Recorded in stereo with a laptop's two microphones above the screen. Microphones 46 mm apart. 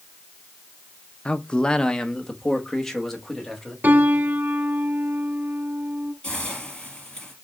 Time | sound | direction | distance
1.2 | a man speaking | 25° left (ahead or behind) | 0.6 m
3.8 | a piano | 45° right (ahead or behind) | 1.4 m
6.2 | a hiss | 15° left (ahead or behind) | 3.5 m